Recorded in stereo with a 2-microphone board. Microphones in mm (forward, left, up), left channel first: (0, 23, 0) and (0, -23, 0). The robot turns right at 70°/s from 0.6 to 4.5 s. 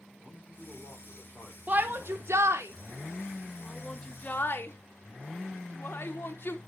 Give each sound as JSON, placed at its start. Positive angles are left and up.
{"t": 0.2, "sound": "a man speaking", "azimuth_deg": -30, "distance_m": 5.0}
{"t": 1.7, "sound": "a shout", "side_deg": -35, "distance_m": 1.2}